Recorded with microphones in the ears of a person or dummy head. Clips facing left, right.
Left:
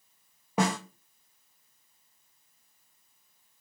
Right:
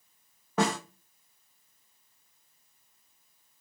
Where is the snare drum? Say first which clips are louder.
Even; 10° left (ahead or behind), 0.6 m.